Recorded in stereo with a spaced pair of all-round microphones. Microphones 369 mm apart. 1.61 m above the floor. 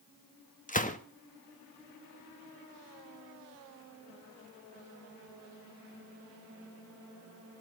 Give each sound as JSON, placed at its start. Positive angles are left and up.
{"t": 0.7, "sound": "a gunshot", "side_deg": 20, "distance_m": 1.4}